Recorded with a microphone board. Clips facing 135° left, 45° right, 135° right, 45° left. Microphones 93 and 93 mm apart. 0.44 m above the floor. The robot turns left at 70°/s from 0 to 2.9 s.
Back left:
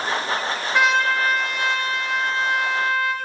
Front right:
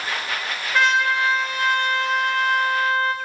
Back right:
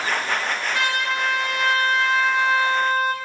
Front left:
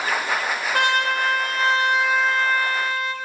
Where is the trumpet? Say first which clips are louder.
Even, front left 5 dB; 55° left, 0.6 m; by 3.1 s 95° right, 0.6 m.